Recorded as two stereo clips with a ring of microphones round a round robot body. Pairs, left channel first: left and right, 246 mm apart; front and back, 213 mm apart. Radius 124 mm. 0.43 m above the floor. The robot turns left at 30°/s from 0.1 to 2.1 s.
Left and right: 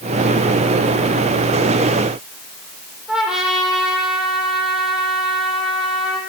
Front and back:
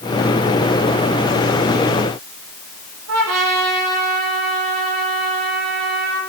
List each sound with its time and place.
3.1 s a trumpet: straight behind, 8.5 m